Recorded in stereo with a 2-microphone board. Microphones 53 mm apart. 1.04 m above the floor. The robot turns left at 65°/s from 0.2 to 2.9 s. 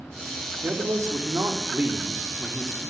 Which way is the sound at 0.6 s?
60° right.